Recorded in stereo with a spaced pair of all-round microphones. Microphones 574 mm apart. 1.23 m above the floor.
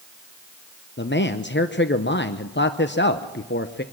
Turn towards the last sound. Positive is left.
turn(degrees=20)  # may be behind; listen again after turning